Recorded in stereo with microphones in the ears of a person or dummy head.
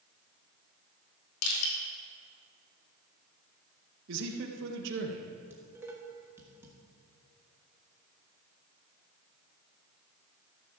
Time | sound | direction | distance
1.4 | crushing | 85° left | 2.5 m
4.1 | a man speaking | 70° right (ahead or behind) | 1.4 m
5.5 | dishes clattering | 10° right (ahead or behind) | 1.6 m